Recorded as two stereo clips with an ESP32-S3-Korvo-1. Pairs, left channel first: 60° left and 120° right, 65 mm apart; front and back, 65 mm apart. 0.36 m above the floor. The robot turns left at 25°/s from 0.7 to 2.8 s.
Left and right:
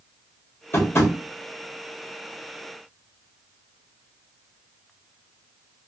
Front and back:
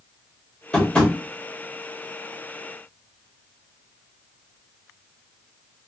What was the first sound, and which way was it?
Tapping, 70° left.